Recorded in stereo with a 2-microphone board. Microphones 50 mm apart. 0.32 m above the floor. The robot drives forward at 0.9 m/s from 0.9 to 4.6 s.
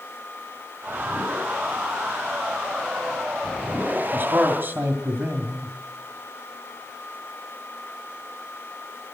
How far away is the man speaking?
About 2 m.